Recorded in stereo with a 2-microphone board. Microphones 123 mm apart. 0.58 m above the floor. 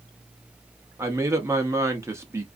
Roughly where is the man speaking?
Right.